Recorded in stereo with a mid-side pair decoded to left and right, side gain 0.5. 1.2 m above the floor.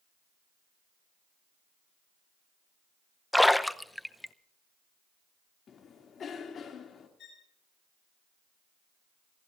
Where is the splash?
5° left, 0.7 m.